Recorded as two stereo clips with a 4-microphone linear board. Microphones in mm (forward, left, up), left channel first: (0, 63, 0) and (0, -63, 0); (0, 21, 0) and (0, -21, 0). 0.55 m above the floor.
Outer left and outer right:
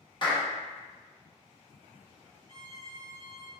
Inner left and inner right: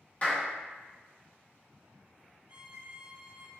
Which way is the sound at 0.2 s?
35° left (ahead or behind).